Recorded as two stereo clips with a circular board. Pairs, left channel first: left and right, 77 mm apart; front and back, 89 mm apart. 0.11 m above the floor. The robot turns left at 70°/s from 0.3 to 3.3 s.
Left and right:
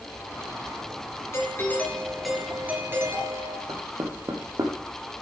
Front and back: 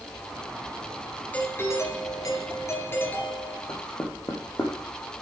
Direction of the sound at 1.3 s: 65° left.